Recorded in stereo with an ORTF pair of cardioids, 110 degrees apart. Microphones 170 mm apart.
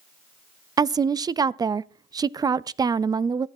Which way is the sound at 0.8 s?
25° right.